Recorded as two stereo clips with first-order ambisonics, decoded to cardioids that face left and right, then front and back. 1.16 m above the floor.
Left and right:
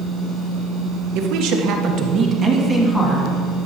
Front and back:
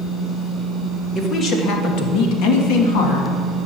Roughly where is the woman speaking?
Ahead right.